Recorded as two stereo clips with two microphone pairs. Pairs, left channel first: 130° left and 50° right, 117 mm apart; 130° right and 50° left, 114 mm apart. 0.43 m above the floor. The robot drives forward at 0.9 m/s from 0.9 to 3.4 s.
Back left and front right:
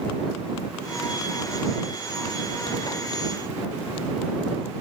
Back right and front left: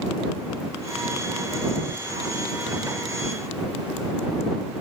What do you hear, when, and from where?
Only background noise.